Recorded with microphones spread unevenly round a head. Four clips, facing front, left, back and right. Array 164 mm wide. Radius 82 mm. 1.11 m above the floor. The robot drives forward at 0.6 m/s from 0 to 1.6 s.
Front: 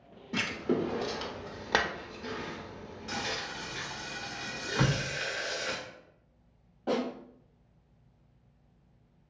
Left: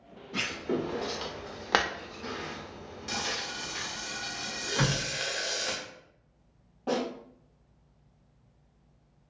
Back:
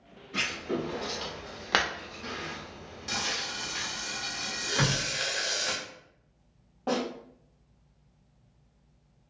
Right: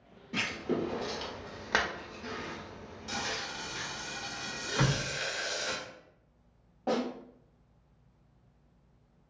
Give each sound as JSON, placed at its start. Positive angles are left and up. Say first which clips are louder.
{"t": 0.3, "sound": "writing", "louder": "left 1 dB, front 2 dB", "azimuth_deg": -5, "distance_m": 1.0}
{"t": 3.1, "sound": "frying", "louder": "left 1 dB, back 1 dB", "azimuth_deg": -155, "distance_m": 0.8}
{"t": 4.8, "sound": "a door slam", "louder": "left 1 dB, even", "azimuth_deg": -170, "distance_m": 1.3}
{"t": 6.9, "sound": "a snare drum", "louder": "left 1 dB, back 1 dB", "azimuth_deg": -140, "distance_m": 1.9}